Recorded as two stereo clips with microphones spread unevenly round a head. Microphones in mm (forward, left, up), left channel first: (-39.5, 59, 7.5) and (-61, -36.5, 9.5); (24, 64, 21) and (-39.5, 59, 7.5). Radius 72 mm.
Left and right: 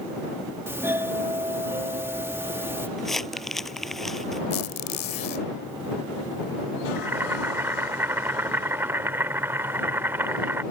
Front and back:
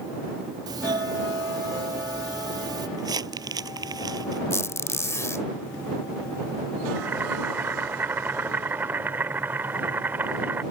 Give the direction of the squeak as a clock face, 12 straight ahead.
11 o'clock.